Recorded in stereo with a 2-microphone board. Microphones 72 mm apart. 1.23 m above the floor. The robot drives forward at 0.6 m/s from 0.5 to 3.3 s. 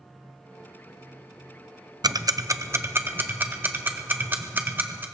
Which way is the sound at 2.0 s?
65° right (ahead or behind).